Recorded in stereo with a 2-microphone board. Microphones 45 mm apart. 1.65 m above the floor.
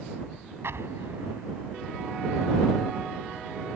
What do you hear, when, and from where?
0.6 s an explosion: 65° right (ahead or behind)